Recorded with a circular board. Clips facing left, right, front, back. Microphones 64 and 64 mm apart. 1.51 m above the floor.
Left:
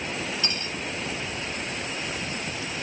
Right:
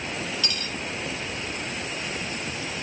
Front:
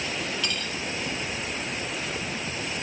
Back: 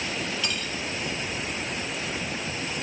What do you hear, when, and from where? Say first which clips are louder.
0.4 s cutlery clinking: even, even; 100° left, 0.6 m